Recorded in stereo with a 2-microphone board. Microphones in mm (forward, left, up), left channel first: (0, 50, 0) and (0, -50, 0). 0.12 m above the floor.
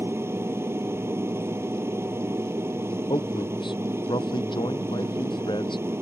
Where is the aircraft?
25° right (ahead or behind).